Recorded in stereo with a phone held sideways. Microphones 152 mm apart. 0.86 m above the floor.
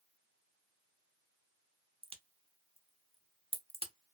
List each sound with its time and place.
2.0 s a crack: 40° right (ahead or behind), 0.5 m